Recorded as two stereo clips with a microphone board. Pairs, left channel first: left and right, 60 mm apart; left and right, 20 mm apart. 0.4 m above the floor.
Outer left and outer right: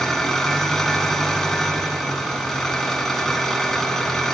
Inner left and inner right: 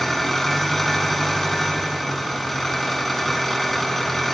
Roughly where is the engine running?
Centre.